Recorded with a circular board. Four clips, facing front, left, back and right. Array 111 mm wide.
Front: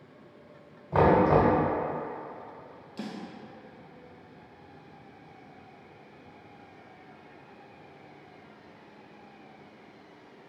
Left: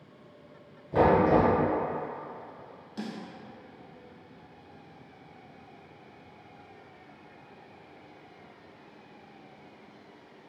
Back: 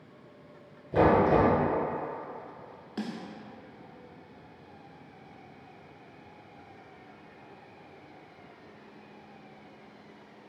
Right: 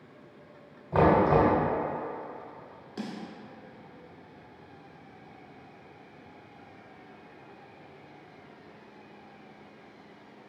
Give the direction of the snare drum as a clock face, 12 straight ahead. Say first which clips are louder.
Even, back 3 dB; 5 o'clock.